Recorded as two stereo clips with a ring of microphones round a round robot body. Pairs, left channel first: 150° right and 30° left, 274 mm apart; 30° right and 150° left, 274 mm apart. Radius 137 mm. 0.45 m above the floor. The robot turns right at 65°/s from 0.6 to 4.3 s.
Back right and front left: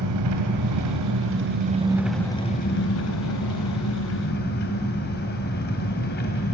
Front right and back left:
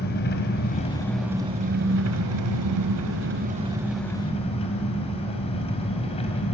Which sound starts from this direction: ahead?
An engine running, at 0.0 s.